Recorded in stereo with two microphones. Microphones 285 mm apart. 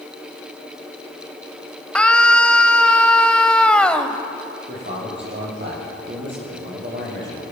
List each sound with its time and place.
1.9 s a scream: 5° left (ahead or behind), 1.6 m
4.7 s a man speaking: 40° right (ahead or behind), 10 m